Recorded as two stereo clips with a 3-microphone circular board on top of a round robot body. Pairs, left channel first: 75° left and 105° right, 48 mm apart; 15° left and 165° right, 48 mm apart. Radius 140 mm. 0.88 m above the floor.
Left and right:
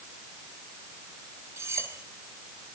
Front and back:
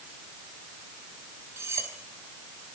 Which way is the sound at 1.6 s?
135° right.